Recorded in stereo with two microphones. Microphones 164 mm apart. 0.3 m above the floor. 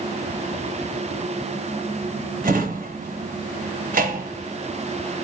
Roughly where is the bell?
I don't hear a bell.